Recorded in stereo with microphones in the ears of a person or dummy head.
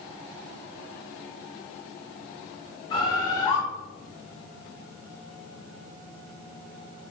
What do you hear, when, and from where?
2.9 s a bird: 30° left (ahead or behind), 1.9 m